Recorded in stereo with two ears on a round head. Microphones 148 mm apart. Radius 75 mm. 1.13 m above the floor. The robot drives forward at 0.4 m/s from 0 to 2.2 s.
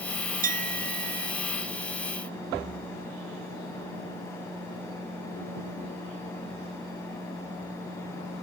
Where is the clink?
55° right (ahead or behind).